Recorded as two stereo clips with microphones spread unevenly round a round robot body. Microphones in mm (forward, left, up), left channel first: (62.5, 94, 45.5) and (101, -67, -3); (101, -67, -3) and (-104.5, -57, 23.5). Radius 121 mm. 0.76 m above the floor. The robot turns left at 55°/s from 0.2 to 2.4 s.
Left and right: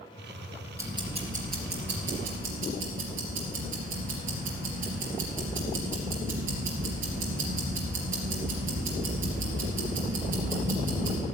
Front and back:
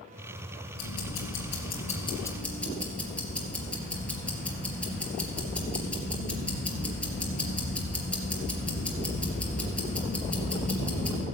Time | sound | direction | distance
0.8 | ticking | straight ahead | 3.5 m